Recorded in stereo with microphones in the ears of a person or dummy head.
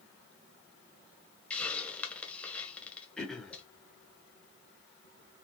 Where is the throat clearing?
Centre (ahead or behind), 1.2 m.